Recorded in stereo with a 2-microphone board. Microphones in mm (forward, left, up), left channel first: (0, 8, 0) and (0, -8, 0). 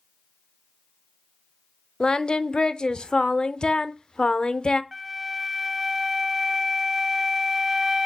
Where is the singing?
70° left (ahead or behind), 0.6 m.